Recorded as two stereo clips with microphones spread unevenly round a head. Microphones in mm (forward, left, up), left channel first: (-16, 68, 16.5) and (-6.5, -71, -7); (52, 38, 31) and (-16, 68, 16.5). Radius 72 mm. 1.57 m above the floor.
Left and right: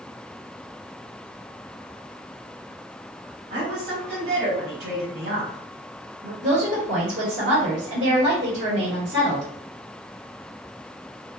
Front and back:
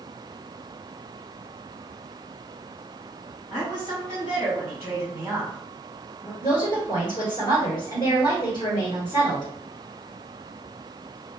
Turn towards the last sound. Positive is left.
turn(degrees=-75)